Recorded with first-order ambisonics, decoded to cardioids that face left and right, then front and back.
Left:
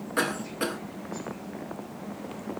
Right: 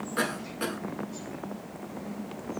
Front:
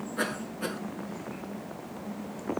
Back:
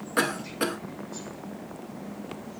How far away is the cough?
About 2.5 m.